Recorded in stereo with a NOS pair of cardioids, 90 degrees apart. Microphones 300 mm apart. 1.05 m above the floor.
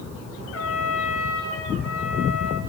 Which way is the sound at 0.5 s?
45° left.